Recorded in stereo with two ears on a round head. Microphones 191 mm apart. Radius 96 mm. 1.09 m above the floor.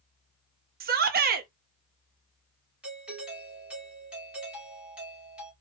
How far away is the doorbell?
About 3 m.